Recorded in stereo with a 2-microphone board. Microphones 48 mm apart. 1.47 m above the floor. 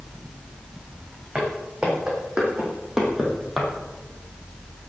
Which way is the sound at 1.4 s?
25° right (ahead or behind).